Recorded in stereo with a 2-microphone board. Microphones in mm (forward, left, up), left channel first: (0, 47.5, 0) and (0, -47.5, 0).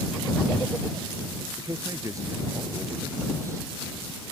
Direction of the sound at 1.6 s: 35° right (ahead or behind).